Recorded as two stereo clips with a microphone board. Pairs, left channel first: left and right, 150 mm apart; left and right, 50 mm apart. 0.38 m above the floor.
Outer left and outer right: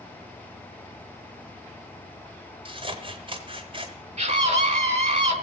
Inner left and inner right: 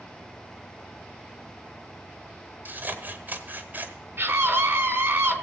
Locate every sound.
2.6 s scissors: 35° right (ahead or behind), 1.2 m
4.2 s a scream: 45° right (ahead or behind), 1.5 m